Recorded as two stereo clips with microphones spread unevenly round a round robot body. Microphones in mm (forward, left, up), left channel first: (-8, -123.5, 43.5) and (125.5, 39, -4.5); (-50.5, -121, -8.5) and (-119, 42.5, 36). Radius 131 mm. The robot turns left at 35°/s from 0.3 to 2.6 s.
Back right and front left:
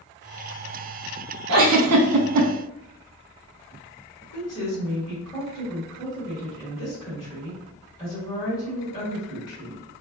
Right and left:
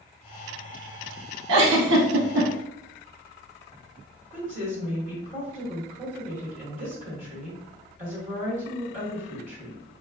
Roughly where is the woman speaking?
Behind left.